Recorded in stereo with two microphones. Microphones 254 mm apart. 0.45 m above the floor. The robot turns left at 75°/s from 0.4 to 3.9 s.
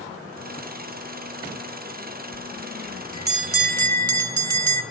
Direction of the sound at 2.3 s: 30° left.